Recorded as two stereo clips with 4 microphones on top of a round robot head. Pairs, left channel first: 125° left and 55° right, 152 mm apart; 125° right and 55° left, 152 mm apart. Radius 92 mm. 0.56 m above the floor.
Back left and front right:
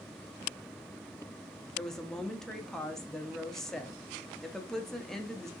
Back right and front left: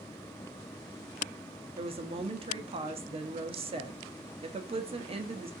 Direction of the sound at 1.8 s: 40° left.